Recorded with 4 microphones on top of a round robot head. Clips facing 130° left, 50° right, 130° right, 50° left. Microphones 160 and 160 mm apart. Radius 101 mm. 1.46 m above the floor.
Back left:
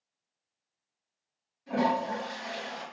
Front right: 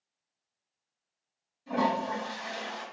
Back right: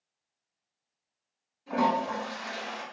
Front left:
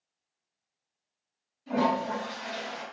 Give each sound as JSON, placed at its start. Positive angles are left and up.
{"t": 1.7, "sound": "a toilet flushing", "azimuth_deg": 5, "distance_m": 2.0}